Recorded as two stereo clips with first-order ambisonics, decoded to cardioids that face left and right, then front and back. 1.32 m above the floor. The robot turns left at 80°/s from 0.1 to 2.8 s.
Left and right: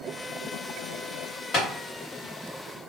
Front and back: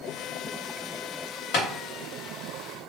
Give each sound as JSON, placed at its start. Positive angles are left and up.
{"t": 1.5, "sound": "tapping", "azimuth_deg": 30, "distance_m": 1.2}